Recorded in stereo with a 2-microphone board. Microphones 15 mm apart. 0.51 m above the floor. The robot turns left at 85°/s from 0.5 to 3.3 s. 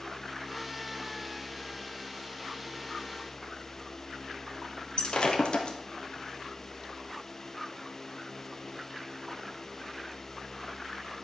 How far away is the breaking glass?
About 1.6 m.